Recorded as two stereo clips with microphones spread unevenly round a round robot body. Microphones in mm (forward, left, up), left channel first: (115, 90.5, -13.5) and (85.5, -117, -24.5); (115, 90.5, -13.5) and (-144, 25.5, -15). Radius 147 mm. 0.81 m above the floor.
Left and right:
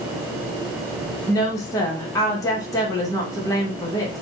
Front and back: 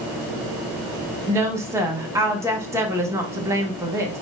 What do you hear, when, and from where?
1.3 s a woman speaking: 135° left, 1.0 m